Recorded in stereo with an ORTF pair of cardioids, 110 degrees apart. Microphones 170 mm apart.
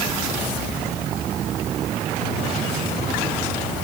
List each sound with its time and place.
Only background noise.